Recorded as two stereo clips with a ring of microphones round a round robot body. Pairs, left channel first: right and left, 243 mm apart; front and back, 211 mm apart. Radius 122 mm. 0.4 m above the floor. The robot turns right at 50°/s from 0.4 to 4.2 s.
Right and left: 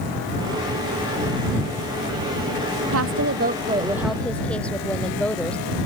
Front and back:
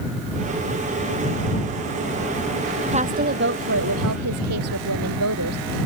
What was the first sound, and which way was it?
A woman speaking, 120° left.